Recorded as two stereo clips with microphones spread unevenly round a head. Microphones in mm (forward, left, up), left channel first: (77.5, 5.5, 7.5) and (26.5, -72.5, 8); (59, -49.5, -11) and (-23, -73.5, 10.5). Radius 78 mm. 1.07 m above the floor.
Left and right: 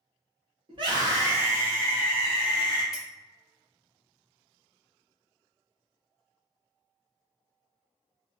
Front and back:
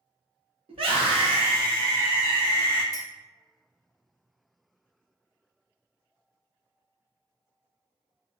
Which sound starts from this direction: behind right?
A scream, at 0.7 s.